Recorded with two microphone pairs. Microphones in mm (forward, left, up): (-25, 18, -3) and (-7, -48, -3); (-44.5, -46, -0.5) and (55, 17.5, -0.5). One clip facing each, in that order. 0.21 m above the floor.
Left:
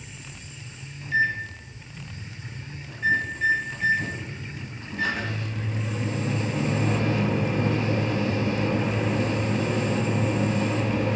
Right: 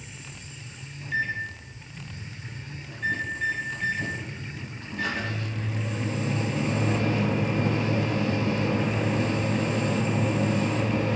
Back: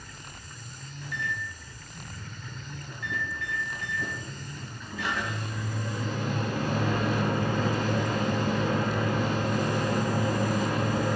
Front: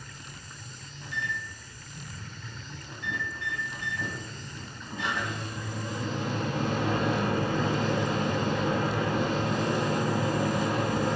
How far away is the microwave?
About 0.8 m.